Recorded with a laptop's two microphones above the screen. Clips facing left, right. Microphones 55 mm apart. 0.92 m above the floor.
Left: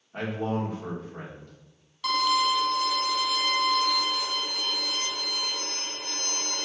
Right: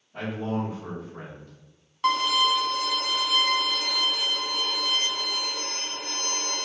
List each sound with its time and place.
0.1 s a man speaking: 55° left (ahead or behind), 1.9 m
2.0 s a violin: 40° right (ahead or behind), 0.6 m